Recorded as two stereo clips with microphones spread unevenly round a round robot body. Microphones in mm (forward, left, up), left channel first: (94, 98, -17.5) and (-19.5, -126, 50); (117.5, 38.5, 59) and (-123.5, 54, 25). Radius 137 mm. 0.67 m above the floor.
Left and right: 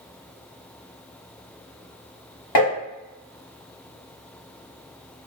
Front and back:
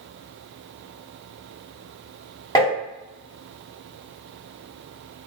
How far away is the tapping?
About 1.4 m.